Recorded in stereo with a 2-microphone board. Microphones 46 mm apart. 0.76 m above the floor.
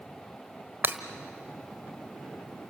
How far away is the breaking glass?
About 1.2 m.